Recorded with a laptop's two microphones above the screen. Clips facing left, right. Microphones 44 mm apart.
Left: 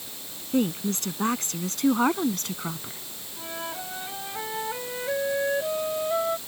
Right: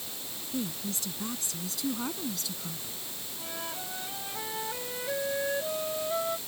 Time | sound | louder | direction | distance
0.5 | a woman speaking | left 10 dB | 55° left (ahead or behind) | ?
3.4 | a flute | left 5 dB | 20° left (ahead or behind) | ?